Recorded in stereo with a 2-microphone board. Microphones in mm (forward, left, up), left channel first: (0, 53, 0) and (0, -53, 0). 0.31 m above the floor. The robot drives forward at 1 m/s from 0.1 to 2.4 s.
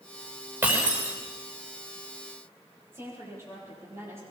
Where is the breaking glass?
25° right (ahead or behind), 6.5 m.